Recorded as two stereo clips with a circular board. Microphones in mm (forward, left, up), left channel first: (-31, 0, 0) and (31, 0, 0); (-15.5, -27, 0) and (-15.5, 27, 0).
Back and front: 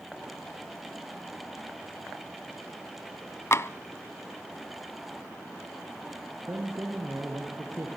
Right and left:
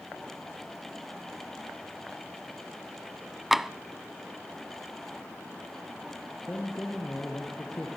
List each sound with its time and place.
3.5 s tapping: 175° left, 0.6 m
6.5 s a man speaking: 40° right, 3.5 m